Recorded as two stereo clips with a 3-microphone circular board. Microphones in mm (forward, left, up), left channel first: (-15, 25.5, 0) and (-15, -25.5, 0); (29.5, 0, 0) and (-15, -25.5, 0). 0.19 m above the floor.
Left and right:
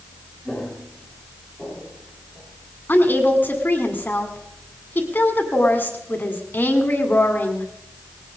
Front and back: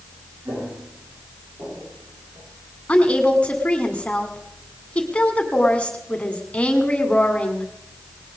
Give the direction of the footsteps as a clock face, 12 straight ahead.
6 o'clock.